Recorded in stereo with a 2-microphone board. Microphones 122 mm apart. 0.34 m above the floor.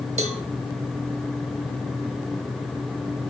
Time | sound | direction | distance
0.2 | a cowbell | 60° right (ahead or behind) | 1.0 m